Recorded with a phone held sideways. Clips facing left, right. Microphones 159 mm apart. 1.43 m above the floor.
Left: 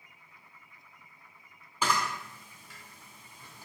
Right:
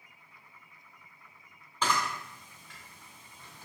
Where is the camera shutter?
10° left (ahead or behind), 1.7 m.